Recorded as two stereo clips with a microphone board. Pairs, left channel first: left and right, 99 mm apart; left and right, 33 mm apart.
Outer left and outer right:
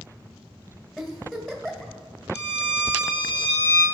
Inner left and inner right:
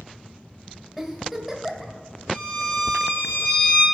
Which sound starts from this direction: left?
A violin, at 2.3 s.